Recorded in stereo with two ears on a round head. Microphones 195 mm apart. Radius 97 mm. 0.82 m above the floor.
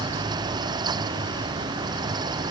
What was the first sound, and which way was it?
Only background noise.